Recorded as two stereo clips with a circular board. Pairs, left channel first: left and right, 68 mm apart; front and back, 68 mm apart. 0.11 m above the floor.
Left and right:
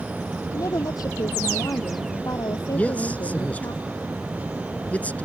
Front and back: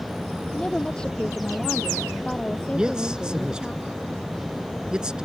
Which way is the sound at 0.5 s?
80° left.